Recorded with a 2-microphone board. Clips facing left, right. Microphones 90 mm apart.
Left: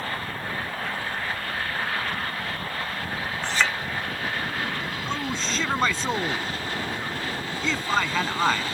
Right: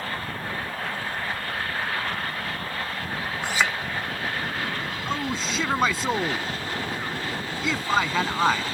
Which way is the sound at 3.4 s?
10° right (ahead or behind).